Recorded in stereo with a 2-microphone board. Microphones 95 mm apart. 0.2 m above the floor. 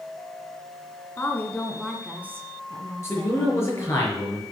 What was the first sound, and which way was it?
A woman speaking, 25° left (ahead or behind).